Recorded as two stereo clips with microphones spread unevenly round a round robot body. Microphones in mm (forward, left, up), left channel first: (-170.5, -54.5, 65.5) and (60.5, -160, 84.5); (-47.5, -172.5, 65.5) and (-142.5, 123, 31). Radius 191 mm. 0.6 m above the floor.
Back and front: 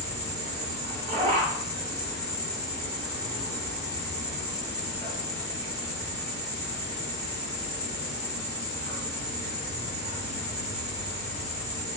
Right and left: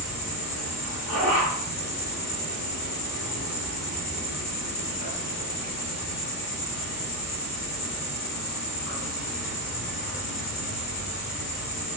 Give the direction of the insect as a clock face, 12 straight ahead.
2 o'clock.